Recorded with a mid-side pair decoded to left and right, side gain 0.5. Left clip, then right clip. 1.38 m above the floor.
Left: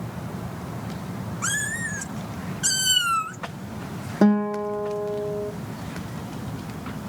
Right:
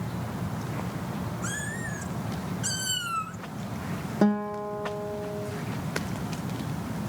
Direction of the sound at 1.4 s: 70° left.